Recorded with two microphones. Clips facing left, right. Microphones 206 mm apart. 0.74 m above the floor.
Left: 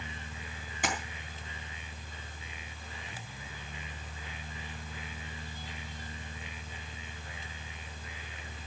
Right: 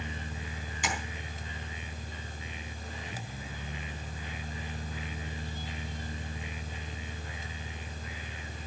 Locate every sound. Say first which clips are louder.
0.8 s tapping: left 2 dB; 55° left (ahead or behind), 3.5 m